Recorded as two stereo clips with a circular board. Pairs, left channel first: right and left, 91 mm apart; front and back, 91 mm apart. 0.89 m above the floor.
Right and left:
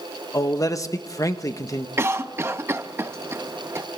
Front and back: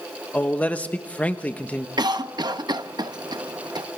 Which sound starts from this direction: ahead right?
A man speaking, at 0.3 s.